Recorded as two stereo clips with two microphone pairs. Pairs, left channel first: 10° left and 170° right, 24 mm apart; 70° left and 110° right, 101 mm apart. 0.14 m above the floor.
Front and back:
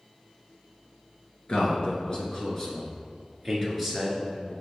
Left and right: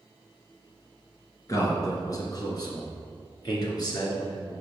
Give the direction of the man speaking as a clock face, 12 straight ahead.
11 o'clock.